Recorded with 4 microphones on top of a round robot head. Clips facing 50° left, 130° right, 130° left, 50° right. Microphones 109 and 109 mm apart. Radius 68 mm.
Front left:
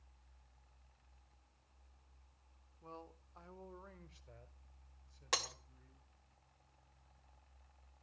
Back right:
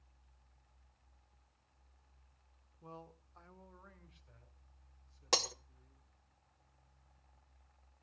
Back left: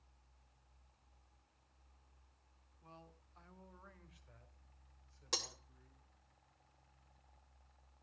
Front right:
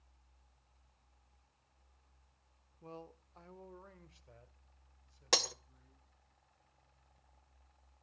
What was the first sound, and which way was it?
A man speaking, 60° right.